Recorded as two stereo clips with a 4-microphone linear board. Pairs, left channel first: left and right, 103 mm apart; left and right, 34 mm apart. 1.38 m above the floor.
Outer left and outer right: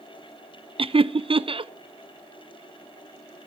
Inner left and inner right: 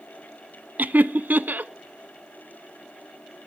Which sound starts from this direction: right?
Laughter, at 0.8 s.